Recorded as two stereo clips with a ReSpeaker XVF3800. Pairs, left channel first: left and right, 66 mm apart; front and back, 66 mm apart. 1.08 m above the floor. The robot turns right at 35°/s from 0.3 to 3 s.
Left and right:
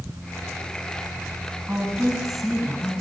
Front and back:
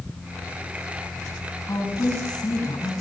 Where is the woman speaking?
25° right, 8.5 m; by 2.9 s 15° left, 8.5 m.